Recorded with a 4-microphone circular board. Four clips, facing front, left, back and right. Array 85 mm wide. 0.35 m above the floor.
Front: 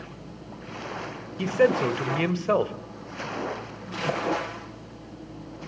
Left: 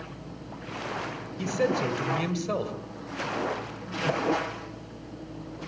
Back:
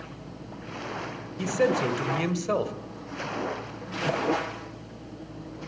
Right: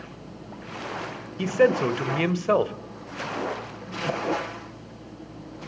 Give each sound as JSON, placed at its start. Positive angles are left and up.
{"t": 1.4, "sound": "a man speaking", "azimuth_deg": -60, "distance_m": 1.8}